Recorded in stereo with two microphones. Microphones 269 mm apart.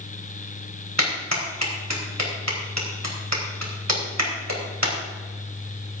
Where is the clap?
75° right (ahead or behind), 4 m.